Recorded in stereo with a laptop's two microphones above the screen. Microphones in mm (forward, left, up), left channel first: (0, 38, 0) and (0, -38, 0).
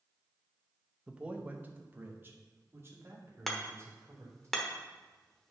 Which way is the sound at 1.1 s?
10° right (ahead or behind).